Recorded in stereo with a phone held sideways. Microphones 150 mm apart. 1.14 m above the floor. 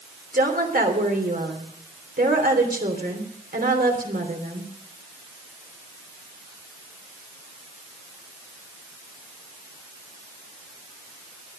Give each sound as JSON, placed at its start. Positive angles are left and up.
{"t": 0.3, "sound": "a woman speaking", "side_deg": -90, "distance_m": 3.0}